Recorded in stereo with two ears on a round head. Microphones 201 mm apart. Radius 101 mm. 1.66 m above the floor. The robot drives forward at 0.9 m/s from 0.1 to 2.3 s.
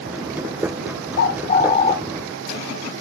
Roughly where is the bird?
Left.